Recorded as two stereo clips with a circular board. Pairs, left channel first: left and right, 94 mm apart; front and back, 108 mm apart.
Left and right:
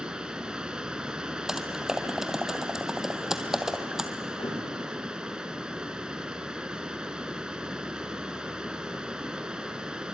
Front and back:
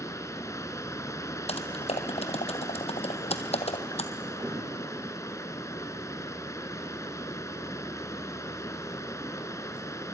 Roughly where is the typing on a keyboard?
Ahead.